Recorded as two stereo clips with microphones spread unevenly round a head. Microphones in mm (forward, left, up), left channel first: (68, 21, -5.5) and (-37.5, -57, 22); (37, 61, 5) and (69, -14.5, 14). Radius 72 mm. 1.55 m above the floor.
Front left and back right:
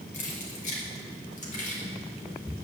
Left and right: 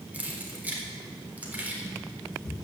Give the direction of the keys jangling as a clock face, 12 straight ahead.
12 o'clock.